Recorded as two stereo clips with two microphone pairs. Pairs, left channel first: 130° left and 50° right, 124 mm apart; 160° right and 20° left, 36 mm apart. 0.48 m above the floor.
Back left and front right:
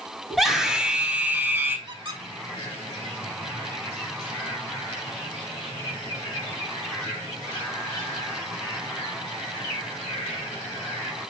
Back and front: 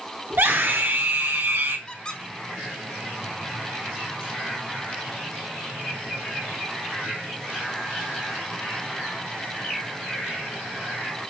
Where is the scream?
40° left, 3 m; by 1.8 s 20° left, 2.5 m.